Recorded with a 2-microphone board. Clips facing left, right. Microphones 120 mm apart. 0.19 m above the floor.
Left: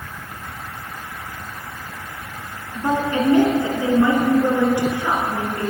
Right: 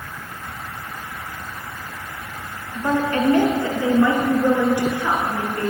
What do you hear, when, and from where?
2.8 s a woman speaking: 15° left (ahead or behind), 1.9 m; by 5.7 s 20° left (ahead or behind), 3.5 m